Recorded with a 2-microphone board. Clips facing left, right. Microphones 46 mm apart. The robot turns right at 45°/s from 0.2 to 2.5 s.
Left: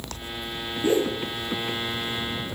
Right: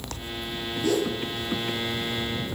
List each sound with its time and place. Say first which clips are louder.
0.8 s a whoosh: left 3 dB; 20° left (ahead or behind), 2.5 m; by 1.2 s 40° left (ahead or behind), 2.5 m